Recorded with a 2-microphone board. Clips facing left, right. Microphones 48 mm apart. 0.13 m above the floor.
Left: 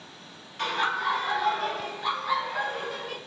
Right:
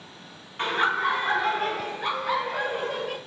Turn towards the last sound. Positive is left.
turn(degrees=-60)  # may be behind; listen again after turning